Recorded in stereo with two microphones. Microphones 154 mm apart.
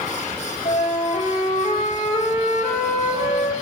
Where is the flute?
55° left (ahead or behind), 3.5 m.